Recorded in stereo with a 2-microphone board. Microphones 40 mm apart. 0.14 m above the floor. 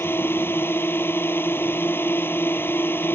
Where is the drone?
65° left (ahead or behind).